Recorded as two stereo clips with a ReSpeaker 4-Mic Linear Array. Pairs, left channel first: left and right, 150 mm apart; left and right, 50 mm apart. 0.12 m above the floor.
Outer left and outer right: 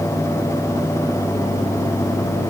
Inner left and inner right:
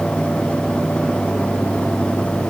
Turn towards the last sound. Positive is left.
No sound to turn to.